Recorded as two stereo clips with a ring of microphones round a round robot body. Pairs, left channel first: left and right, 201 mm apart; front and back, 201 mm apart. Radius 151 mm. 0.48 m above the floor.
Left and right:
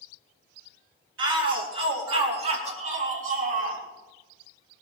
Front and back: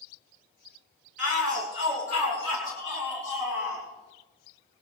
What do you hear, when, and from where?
1.2 s a shout: 120° right, 3.5 m; by 3.8 s 95° right, 4.5 m